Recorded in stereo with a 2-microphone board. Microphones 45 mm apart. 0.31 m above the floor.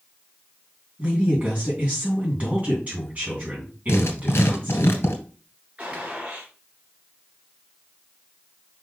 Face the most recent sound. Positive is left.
turn(degrees=-30)  # may be behind; listen again after turning